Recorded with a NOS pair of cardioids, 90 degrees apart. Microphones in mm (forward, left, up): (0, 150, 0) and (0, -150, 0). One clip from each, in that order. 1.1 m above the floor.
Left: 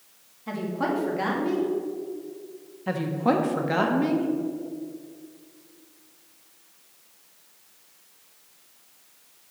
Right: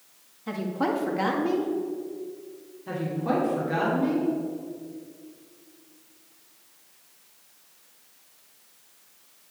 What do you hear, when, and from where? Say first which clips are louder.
0.5 s a woman speaking: even; 15° right, 1.9 m
2.9 s a woman speaking: left 4 dB; 55° left, 1.5 m